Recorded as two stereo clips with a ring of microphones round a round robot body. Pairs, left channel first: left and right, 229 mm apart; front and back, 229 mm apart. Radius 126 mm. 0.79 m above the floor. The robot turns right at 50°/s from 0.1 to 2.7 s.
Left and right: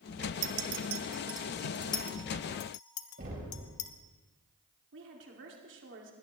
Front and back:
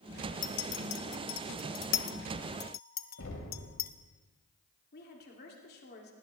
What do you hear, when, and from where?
0.4 s a clink: 60° right, 0.9 m; by 3.9 s 55° left, 0.9 m
3.2 s knocking: 35° right, 4 m
4.9 s a woman speaking: 50° right, 2.5 m